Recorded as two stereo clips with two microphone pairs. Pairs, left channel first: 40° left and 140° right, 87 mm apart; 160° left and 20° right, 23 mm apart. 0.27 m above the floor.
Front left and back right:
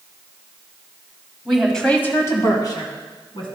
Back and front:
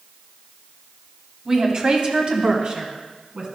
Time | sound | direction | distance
1.4 | a woman speaking | 60° right | 1.6 m